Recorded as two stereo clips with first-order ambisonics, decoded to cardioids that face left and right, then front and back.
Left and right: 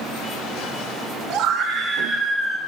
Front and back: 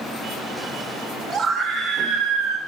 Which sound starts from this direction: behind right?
A scream, at 1.3 s.